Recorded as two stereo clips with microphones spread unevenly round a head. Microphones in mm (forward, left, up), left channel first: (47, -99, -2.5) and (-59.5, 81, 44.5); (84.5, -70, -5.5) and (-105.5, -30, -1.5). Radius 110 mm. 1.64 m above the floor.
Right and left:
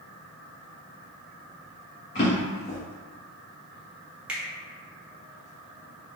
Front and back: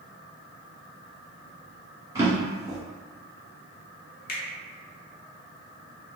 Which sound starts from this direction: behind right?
A drawer, at 2.1 s.